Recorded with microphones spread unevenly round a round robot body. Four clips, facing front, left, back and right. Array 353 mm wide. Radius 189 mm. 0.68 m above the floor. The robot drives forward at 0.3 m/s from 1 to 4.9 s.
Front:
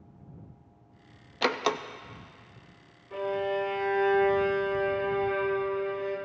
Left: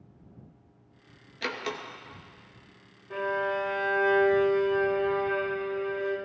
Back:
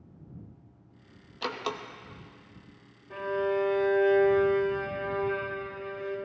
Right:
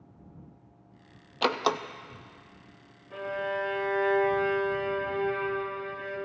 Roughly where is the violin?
Behind left.